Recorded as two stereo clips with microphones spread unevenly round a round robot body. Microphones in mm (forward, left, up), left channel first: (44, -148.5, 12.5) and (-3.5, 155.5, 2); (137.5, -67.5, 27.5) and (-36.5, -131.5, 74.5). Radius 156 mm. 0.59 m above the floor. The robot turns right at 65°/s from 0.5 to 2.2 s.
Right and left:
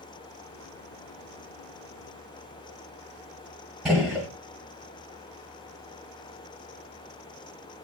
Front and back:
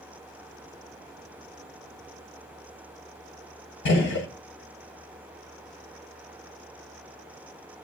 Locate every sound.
3.9 s a gunshot: 10° left, 1.3 m